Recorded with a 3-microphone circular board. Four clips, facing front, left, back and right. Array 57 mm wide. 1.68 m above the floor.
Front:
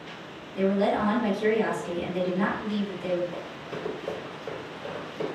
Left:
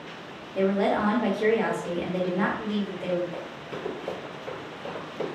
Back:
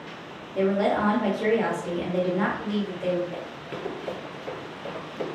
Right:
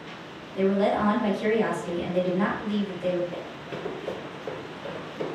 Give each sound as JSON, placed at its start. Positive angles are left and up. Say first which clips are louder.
{"t": 0.6, "sound": "a woman speaking", "louder": "right 1 dB, back 1 dB", "azimuth_deg": 120, "distance_m": 1.1}
{"t": 3.3, "sound": "running footsteps", "louder": "even, back 1 dB", "azimuth_deg": -150, "distance_m": 1.8}